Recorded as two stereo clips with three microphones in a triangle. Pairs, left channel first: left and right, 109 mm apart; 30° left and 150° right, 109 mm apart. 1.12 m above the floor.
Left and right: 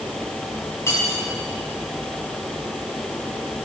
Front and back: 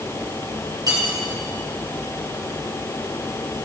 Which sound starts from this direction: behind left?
Cutlery clinking, at 0.9 s.